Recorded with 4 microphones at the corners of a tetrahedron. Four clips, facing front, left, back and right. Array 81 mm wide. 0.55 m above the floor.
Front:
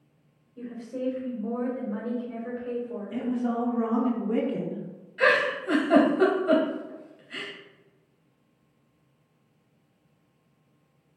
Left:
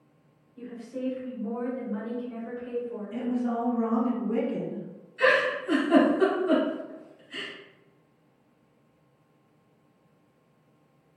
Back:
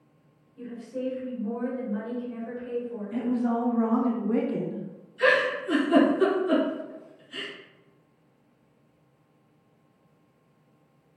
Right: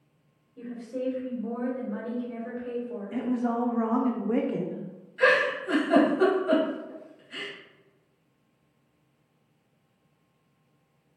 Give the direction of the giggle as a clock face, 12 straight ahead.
12 o'clock.